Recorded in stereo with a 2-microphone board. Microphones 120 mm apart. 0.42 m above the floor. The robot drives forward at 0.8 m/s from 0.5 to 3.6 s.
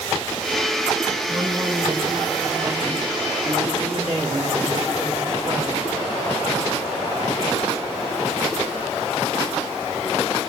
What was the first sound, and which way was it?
A man speaking, 35° right (ahead or behind).